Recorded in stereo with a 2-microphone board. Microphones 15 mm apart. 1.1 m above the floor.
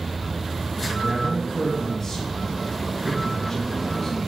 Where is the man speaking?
20° left (ahead or behind), 1.9 m.